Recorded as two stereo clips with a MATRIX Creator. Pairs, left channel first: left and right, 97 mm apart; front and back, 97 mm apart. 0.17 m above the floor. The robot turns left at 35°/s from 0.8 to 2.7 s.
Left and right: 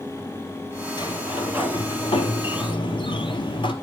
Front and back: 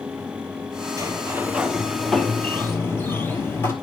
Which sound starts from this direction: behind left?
A sliding door, at 1.0 s.